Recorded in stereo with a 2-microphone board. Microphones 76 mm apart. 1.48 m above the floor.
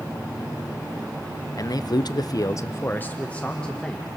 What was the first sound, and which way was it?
A man speaking, 50° left (ahead or behind).